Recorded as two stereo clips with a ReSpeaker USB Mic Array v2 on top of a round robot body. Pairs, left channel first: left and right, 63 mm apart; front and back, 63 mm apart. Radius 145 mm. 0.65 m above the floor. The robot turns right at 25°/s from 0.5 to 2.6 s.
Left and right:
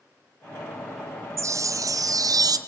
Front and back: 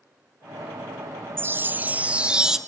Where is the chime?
130° right, 0.7 m; by 2.6 s 100° right, 0.7 m.